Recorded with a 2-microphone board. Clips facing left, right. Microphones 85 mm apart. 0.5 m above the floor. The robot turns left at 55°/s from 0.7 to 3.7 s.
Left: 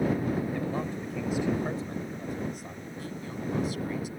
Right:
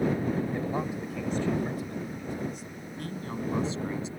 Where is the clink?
I don't hear a clink.